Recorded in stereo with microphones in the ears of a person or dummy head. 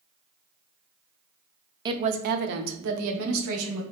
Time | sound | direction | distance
1.9 | a woman speaking | 20° right (ahead or behind) | 0.5 m